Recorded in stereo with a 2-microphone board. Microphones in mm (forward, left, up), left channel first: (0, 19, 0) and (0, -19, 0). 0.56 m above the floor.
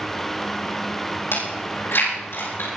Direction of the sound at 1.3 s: 80° left.